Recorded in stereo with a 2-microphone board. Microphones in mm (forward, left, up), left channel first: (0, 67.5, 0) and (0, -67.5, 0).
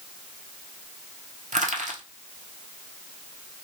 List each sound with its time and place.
1.5 s crushing: 65° right (ahead or behind), 1.1 m